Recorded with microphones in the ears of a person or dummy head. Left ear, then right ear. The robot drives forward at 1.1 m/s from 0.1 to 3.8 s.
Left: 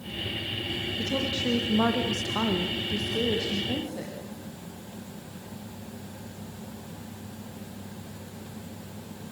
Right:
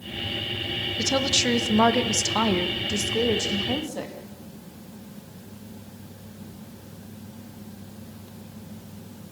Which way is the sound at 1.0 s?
55° right (ahead or behind).